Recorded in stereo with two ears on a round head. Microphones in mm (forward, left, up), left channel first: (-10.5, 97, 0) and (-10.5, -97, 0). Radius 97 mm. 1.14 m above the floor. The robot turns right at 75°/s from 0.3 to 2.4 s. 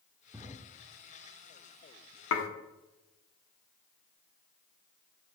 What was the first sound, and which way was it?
A drawer, 10° right (ahead or behind).